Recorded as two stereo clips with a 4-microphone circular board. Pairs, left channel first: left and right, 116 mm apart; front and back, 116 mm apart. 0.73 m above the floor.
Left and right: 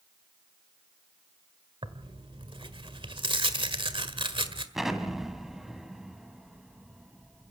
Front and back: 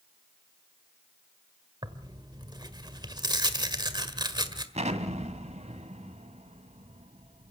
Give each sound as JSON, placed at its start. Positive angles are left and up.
{"t": 1.8, "sound": "tearing paper", "azimuth_deg": -130, "distance_m": 1.6}
{"t": 4.8, "sound": "an explosion", "azimuth_deg": -175, "distance_m": 1.6}